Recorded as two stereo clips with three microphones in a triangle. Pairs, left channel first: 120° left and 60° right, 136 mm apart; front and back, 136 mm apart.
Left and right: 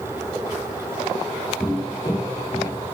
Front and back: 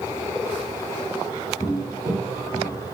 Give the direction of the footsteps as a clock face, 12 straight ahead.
11 o'clock.